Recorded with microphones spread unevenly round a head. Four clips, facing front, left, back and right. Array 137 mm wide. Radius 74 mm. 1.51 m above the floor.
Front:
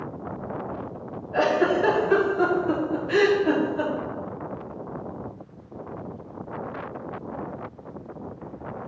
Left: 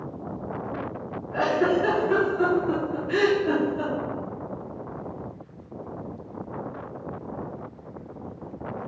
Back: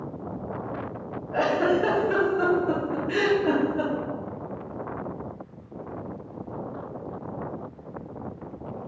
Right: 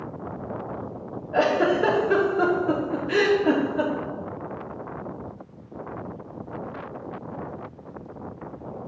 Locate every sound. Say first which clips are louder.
1.3 s a giggle: right 2 dB, front 1 dB; 90° right, 3 m